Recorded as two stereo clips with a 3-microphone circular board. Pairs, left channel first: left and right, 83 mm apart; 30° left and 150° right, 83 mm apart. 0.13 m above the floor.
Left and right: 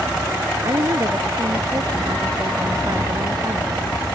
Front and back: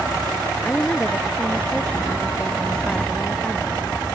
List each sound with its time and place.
0.6 s a woman speaking: 50° right